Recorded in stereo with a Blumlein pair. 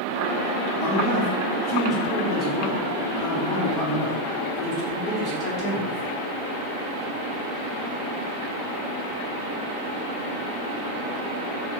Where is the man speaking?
35° left, 1.2 m.